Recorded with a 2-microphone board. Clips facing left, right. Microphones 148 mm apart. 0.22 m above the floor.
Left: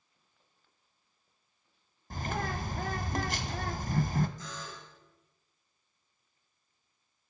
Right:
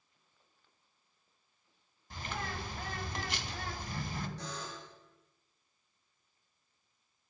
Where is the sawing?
No sawing in this recording.